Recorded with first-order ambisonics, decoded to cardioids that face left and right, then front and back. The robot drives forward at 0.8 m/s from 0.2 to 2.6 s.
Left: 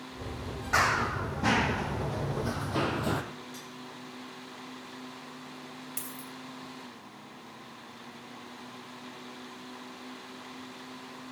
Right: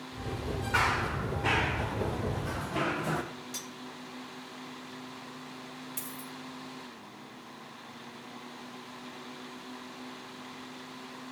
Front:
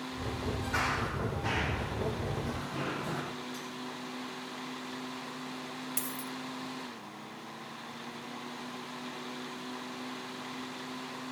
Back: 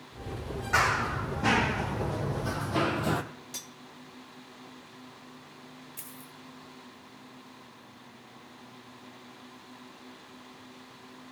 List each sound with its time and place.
0.7 s running footsteps: 115° left, 2.5 m; by 3.2 s 140° left, 1.5 m
3.5 s cutlery clinking: 140° right, 1.1 m
6.0 s a dropped coin: 20° left, 2.0 m